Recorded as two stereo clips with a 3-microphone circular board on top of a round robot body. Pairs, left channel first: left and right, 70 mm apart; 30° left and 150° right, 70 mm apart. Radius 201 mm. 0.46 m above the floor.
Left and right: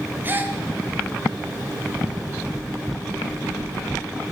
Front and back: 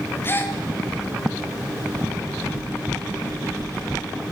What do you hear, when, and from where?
0.2 s a gasp: 30° right, 1.6 m